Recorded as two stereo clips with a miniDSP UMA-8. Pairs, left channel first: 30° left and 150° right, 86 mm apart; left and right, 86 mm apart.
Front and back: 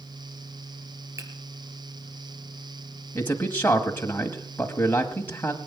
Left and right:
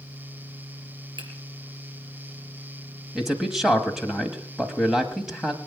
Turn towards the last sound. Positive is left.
turn(degrees=-10)